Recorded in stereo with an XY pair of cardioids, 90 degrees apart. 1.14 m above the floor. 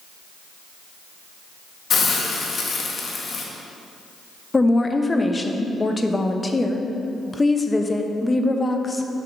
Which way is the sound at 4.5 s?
25° left.